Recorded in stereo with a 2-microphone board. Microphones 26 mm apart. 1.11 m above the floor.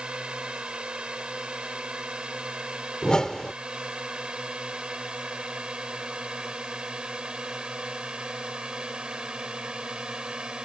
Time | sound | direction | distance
0.0 | a drone | 40° right (ahead or behind) | ?
3.0 | a whoosh | 30° left (ahead or behind) | ?